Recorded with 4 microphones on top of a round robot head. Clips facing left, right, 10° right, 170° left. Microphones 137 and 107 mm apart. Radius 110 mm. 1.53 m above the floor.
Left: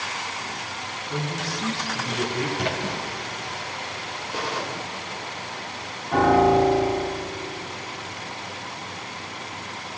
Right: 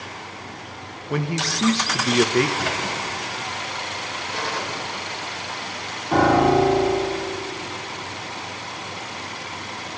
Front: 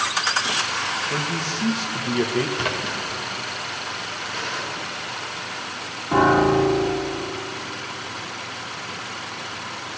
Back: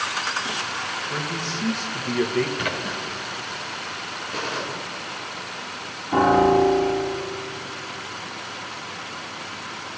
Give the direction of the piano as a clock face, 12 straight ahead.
1 o'clock.